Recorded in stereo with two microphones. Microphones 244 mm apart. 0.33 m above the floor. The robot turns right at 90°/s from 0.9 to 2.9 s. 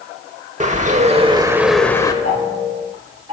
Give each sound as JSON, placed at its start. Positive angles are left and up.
{"t": 0.6, "sound": "a bird", "azimuth_deg": -75, "distance_m": 0.8}
{"t": 2.2, "sound": "ticking", "side_deg": -80, "distance_m": 5.5}